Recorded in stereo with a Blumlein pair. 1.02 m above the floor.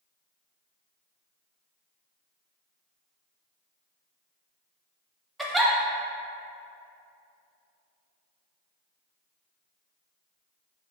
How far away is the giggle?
About 0.5 m.